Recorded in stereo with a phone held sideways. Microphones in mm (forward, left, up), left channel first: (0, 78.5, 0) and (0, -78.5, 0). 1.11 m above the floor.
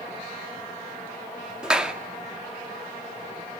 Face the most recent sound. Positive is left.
turn(degrees=-5)  # may be behind; listen again after turning